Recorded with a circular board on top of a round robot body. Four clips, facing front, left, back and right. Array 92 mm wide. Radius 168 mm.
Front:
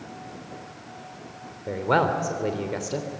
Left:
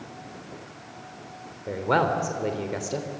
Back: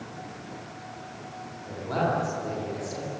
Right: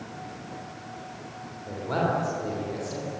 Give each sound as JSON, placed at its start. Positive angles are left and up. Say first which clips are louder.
{"t": 1.7, "sound": "a man speaking", "louder": "left 4 dB, front 5 dB", "azimuth_deg": 40, "distance_m": 3.5}